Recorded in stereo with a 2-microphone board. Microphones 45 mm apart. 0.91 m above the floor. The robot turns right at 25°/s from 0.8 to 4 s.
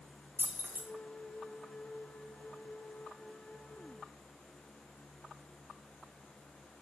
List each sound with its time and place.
0.4 s keys jangling: 60° right (ahead or behind), 0.6 m